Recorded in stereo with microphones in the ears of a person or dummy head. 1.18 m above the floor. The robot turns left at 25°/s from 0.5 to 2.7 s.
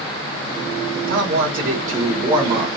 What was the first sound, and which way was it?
A man speaking, 110° right.